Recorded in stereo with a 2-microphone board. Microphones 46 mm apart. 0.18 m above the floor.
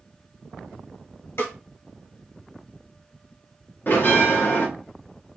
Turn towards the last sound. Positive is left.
turn(degrees=45)  # may be behind; listen again after turning